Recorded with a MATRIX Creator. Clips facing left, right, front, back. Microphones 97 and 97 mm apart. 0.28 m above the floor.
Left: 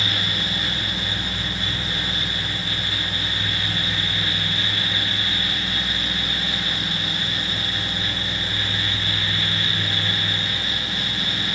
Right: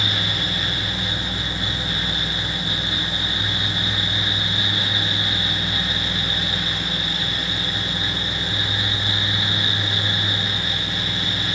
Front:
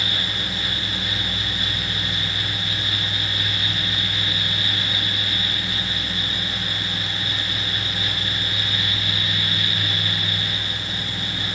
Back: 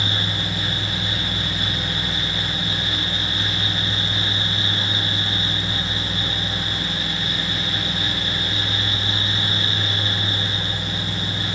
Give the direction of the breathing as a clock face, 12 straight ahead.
I don't hear breathing.